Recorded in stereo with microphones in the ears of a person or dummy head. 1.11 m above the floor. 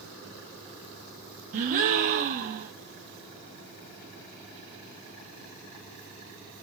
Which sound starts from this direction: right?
A gasp, at 1.5 s.